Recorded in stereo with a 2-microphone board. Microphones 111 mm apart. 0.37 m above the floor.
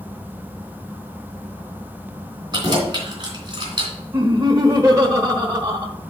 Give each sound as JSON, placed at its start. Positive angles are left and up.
{"t": 2.5, "sound": "keys jangling", "side_deg": -40, "distance_m": 3.0}
{"t": 4.1, "sound": "laughter", "side_deg": -30, "distance_m": 1.0}